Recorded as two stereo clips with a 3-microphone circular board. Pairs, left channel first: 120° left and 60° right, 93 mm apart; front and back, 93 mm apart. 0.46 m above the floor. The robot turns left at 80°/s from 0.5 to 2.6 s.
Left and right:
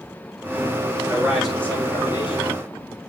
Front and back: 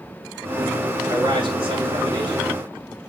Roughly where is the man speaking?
Behind right.